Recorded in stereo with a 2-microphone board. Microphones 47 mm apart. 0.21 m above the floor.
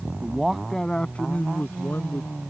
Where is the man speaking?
20° right (ahead or behind); by 2.3 s 50° left (ahead or behind).